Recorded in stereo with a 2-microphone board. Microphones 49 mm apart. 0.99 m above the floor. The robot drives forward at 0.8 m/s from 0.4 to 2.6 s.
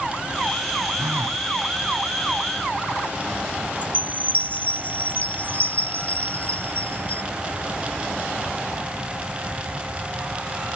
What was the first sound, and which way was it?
A phone buzzing, 75° right (ahead or behind).